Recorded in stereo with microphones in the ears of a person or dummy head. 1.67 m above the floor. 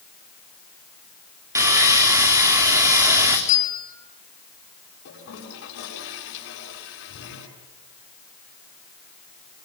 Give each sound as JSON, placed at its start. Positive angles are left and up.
{"t": 1.6, "sound": "sawing", "side_deg": -15, "distance_m": 4.0}
{"t": 3.5, "sound": "a bell", "side_deg": 50, "distance_m": 5.0}
{"t": 5.0, "sound": "a toilet flushing", "side_deg": 70, "distance_m": 8.0}